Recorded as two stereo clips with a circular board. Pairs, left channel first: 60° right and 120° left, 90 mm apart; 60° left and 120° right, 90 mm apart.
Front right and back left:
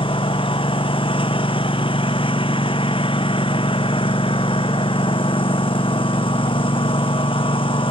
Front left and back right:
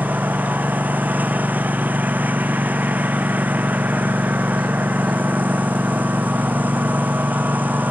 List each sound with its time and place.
0.0 s a lawn mower: 50° right